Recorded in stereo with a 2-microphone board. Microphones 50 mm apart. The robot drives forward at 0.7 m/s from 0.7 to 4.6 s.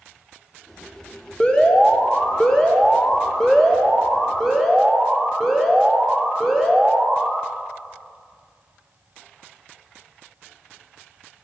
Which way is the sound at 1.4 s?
25° left (ahead or behind).